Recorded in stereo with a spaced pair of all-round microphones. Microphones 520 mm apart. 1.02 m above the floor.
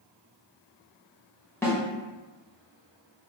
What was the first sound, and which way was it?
A snare drum, 5° left (ahead or behind).